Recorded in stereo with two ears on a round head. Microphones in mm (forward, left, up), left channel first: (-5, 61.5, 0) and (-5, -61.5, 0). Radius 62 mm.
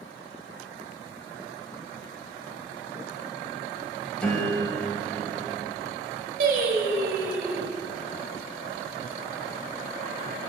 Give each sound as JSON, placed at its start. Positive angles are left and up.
{"t": 4.2, "sound": "a piano", "side_deg": 10, "distance_m": 1.4}
{"t": 6.4, "sound": "singing", "side_deg": -65, "distance_m": 1.3}